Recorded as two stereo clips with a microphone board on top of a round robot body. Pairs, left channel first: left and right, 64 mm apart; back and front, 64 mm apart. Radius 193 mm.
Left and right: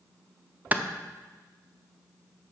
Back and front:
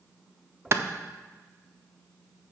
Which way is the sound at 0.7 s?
30° right.